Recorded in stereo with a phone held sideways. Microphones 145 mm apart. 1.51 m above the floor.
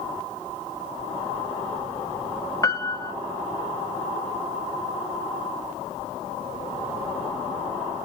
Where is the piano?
20° left (ahead or behind), 0.6 m.